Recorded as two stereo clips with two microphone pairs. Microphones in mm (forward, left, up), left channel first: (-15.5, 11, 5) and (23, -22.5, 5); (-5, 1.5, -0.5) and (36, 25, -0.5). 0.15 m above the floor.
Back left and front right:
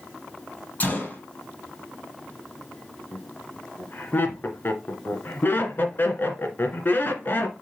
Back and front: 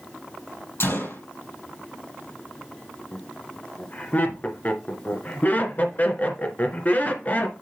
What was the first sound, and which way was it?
A gunshot, 165° right.